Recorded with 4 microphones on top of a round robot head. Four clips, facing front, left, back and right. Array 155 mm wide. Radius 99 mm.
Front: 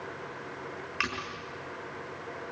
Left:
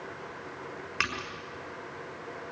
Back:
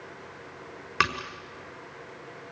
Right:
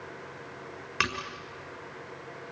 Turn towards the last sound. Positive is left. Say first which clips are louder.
# right 3 dB, back 8 dB
turn(degrees=-170)